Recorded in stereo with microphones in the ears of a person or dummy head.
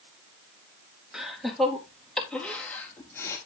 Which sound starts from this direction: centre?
Laughter, at 1.1 s.